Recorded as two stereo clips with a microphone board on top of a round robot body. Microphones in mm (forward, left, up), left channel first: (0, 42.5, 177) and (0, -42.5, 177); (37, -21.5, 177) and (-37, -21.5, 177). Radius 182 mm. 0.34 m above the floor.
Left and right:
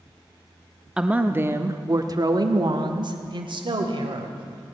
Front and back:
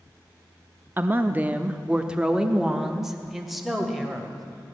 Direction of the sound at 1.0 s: 160° right.